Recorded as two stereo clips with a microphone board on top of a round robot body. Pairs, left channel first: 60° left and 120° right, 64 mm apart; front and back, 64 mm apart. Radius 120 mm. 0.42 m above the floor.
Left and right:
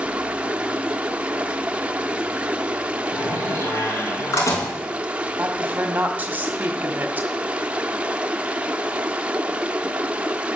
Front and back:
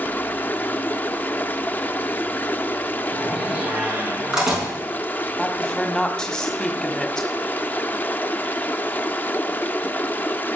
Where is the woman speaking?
70° right, 1.4 m.